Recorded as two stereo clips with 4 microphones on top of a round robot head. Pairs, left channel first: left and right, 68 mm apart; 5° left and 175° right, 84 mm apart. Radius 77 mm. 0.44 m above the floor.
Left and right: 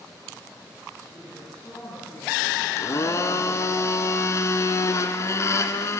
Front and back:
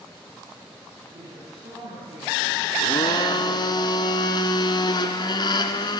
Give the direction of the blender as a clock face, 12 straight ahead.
11 o'clock.